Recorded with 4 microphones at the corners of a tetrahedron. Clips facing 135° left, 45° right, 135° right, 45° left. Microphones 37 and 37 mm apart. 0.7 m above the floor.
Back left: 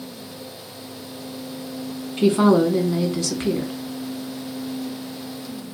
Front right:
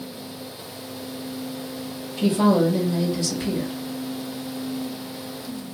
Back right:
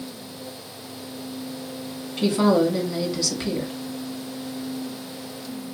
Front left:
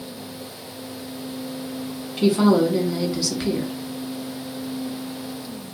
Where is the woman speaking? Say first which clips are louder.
Back left 3 dB, front left 2 dB; 125° left, 1.0 m.